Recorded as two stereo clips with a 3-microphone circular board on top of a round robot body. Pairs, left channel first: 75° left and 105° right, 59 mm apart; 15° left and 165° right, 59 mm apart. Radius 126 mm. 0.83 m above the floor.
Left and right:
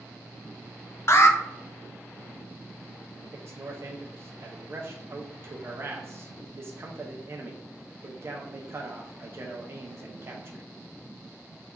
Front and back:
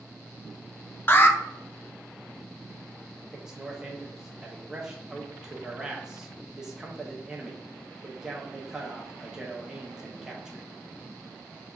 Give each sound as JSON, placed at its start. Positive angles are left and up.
{"t": 1.1, "sound": "an alarm", "azimuth_deg": 55, "distance_m": 0.6}
{"t": 3.3, "sound": "a man speaking", "azimuth_deg": -90, "distance_m": 0.7}